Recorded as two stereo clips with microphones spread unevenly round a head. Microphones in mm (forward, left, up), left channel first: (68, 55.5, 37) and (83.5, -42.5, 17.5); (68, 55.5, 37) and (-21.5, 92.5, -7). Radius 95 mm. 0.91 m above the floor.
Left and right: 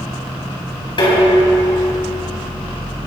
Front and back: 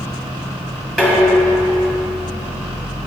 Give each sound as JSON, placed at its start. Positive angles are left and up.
{"t": 1.0, "sound": "dishes clattering", "azimuth_deg": 65, "distance_m": 5.0}